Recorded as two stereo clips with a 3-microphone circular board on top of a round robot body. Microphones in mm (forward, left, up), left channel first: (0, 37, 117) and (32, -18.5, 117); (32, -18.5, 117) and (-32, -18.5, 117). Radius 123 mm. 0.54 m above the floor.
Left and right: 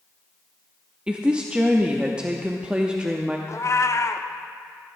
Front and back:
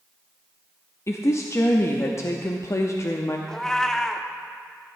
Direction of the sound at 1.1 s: 10° left.